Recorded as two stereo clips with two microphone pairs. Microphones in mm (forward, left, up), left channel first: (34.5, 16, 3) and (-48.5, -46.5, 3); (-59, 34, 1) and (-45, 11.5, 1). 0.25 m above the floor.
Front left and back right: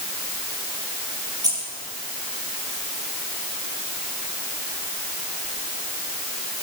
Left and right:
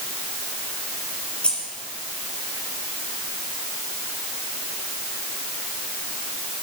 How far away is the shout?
I don't hear a shout.